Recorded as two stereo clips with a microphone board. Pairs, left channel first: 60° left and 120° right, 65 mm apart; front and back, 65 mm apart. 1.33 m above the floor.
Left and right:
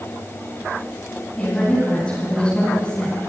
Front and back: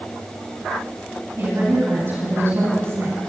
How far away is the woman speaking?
About 9.5 m.